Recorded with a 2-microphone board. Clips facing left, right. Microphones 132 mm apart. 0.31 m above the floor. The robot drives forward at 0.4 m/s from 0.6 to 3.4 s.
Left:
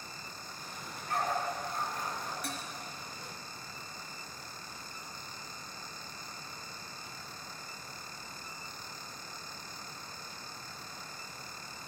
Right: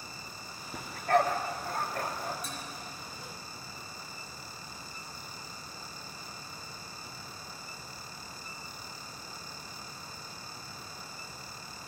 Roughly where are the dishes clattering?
Left.